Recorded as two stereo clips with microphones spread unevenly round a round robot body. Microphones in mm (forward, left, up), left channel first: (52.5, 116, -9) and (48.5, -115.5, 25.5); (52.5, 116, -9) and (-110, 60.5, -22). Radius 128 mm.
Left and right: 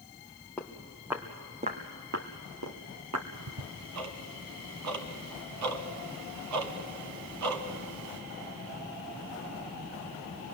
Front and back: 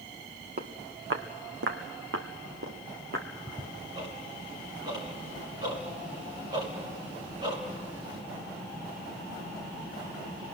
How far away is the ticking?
About 1.4 m.